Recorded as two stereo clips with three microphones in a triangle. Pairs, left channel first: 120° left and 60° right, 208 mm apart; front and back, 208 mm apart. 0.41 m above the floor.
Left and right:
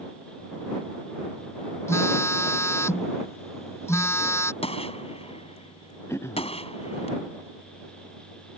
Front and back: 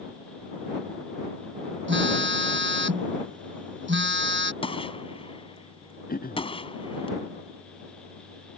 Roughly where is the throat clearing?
Ahead left.